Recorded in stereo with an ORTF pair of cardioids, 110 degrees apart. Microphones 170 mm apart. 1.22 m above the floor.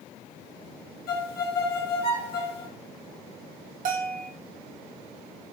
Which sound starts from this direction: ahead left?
A violin, at 1.1 s.